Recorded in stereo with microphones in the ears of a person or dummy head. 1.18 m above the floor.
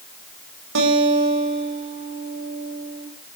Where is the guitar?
70° right (ahead or behind), 5 m.